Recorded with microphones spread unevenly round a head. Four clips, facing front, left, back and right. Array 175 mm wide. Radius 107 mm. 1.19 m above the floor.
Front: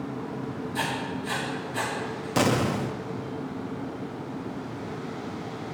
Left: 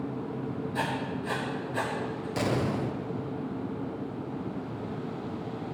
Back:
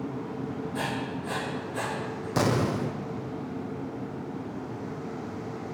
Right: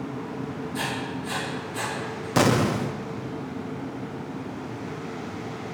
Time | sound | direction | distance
0.7 | writing | 120° left | 3.5 m
2.4 | an explosion | 80° right | 0.7 m